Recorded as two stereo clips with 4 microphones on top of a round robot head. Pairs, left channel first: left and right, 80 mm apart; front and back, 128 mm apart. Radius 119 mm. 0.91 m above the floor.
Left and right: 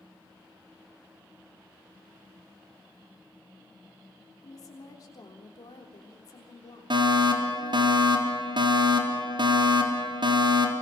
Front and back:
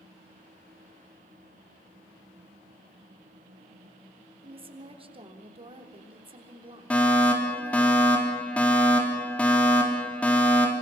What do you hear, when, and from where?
4.4 s a woman speaking: 135° left, 3.5 m
6.9 s a fire alarm: 80° right, 3.5 m